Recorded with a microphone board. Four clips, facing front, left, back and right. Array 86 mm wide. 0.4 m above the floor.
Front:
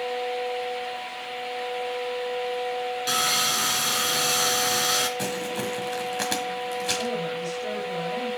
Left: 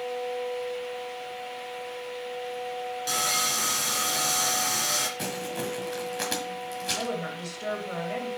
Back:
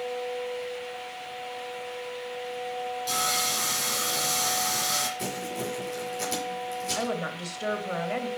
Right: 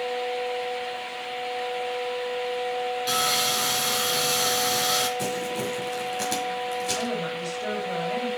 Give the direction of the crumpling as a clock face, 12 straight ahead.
12 o'clock.